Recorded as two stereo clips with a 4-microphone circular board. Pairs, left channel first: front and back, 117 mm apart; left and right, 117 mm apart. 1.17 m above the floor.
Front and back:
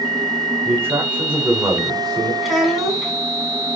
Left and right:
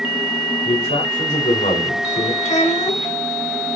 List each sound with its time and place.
0.7 s a man speaking: 115° left, 4 m; by 2.3 s 80° left, 3.5 m
2.4 s a child speaking: 90° left, 5 m